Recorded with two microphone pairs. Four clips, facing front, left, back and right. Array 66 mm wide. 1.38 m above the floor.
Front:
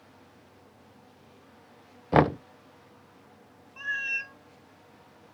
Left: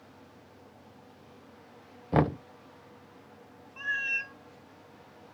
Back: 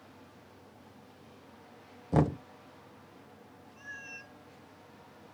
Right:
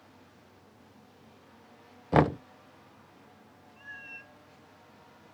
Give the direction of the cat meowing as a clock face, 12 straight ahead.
11 o'clock.